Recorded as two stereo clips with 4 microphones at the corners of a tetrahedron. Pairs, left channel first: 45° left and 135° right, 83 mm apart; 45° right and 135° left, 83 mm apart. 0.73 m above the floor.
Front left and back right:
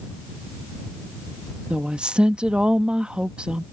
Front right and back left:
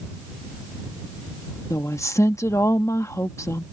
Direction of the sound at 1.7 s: 65° right.